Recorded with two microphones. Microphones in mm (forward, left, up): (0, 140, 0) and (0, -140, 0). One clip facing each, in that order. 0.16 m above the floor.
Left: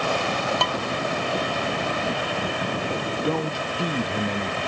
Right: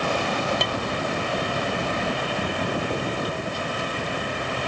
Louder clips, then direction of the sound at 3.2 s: Left 4 dB; 70° left (ahead or behind).